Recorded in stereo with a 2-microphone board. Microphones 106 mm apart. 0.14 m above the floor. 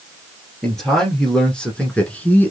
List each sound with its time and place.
0.6 s a man speaking: centre (ahead or behind), 2 m; by 2.5 s 20° left (ahead or behind), 1.2 m